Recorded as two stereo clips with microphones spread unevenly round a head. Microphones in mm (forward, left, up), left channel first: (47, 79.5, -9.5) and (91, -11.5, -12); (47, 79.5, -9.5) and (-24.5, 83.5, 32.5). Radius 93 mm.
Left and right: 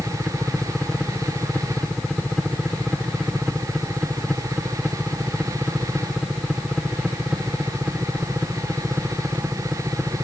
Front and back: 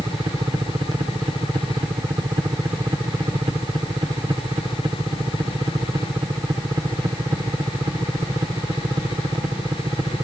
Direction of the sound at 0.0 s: 160° right.